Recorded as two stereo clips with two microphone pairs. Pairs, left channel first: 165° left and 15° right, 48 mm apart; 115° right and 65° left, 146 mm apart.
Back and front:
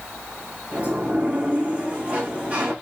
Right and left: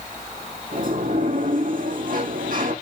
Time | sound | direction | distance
0.7 | a sliding door | 50° left | 7 m